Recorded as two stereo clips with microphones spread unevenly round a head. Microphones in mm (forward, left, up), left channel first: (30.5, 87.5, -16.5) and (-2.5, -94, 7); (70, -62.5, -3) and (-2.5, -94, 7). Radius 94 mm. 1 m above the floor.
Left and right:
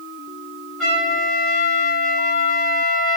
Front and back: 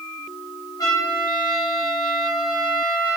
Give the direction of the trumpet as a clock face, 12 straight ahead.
12 o'clock.